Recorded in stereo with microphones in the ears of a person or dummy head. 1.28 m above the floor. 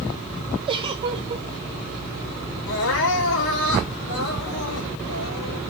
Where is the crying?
75° left (ahead or behind), 3.5 m.